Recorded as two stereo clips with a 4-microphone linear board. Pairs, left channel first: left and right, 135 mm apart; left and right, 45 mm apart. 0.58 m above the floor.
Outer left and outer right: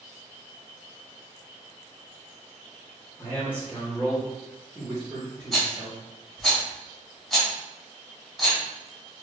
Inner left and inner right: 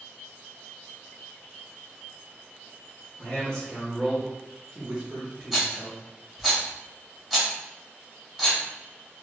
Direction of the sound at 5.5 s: Centre (ahead or behind).